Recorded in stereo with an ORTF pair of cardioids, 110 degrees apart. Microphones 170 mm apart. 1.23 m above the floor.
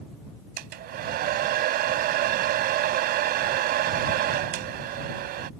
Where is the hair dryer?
70° right.